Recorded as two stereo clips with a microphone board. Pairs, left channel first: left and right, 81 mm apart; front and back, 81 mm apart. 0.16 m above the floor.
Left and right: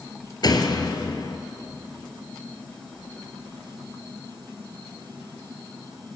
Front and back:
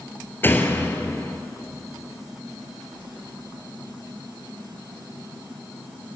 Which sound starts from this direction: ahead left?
A door slam, at 0.4 s.